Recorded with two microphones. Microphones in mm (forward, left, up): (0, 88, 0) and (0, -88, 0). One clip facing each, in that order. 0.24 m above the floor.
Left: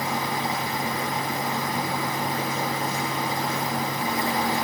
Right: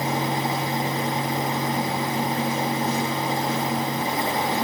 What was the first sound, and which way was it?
Only background noise.